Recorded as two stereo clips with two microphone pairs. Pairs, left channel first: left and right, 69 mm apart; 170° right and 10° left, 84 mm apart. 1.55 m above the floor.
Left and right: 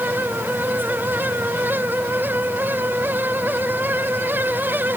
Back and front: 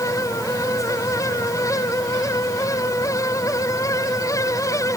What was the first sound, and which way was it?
Only background noise.